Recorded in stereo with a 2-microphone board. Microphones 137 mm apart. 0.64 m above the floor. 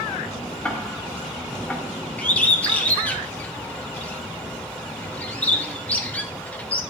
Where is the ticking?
10° left (ahead or behind), 0.9 m.